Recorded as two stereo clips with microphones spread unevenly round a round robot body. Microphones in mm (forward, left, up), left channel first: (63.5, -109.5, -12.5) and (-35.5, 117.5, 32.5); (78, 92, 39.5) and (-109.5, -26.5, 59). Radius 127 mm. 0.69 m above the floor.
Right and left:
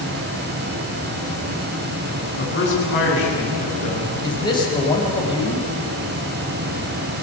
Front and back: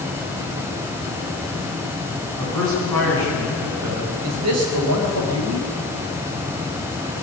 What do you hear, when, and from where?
2.4 s a man speaking: 115° right, 9.5 m; by 4.1 s 100° right, 11 m
4.2 s a man speaking: 140° right, 4 m